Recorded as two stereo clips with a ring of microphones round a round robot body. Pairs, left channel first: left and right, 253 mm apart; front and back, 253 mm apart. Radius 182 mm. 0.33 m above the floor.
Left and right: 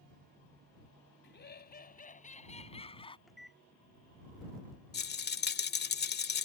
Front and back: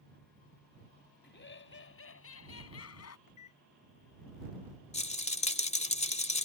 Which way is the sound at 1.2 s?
45° left.